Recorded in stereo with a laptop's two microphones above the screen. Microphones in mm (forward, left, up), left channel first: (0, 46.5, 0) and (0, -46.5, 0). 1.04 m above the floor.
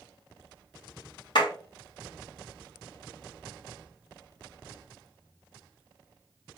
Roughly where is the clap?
Left.